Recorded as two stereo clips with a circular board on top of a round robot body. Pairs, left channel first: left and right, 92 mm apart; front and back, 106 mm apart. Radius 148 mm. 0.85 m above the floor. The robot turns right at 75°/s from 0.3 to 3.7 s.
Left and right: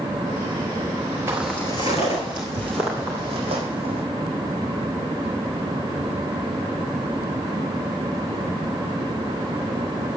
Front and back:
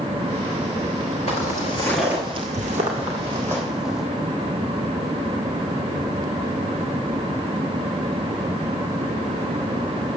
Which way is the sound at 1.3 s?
35° right.